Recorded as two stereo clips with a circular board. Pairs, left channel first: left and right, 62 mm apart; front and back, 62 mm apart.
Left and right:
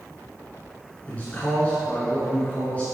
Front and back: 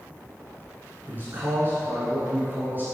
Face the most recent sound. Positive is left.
turn(degrees=145)